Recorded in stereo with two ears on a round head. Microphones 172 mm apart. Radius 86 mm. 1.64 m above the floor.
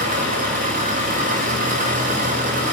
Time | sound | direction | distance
0.0 | an engine running | 45° right (ahead or behind) | 7 m